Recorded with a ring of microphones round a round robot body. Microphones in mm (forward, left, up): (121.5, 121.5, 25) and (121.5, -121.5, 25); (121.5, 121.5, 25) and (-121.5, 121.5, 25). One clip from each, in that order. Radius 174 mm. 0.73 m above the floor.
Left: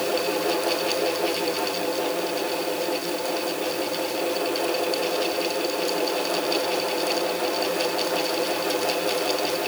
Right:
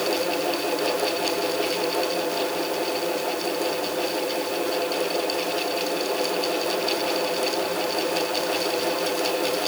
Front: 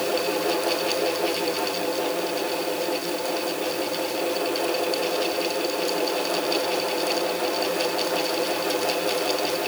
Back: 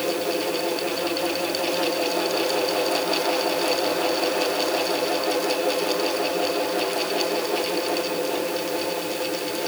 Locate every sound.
Only background noise.